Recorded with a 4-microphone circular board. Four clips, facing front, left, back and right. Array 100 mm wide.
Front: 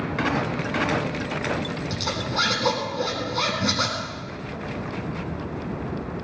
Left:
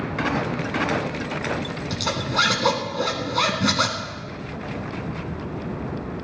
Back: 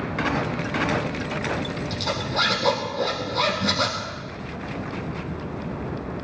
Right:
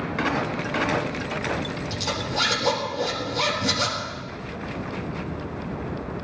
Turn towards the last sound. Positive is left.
turn(degrees=85)